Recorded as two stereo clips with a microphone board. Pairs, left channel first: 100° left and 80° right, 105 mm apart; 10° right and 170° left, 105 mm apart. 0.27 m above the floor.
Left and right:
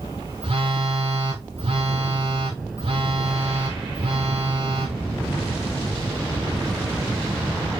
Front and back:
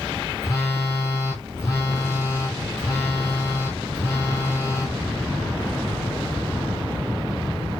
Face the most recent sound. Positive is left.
turn(degrees=-75)